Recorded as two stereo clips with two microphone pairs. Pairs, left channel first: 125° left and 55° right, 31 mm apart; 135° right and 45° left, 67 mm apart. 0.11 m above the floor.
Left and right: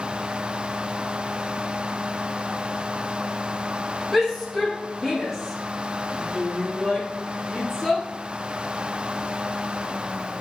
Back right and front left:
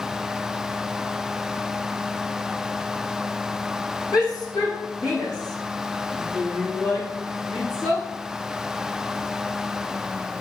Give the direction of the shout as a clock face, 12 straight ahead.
5 o'clock.